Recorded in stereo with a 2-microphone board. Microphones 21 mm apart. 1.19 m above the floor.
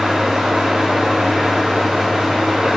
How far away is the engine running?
About 9.5 m.